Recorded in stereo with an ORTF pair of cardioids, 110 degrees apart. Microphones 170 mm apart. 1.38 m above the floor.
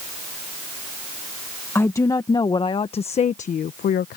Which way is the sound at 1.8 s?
15° left.